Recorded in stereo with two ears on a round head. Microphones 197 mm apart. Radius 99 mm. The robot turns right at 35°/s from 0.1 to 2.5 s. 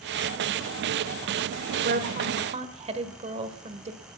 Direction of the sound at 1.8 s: 45° right (ahead or behind).